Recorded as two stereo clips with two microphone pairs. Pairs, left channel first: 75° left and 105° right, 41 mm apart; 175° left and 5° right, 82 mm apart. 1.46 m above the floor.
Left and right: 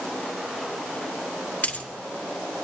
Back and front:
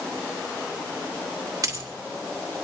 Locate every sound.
1.6 s a dropped coin: 35° left, 2 m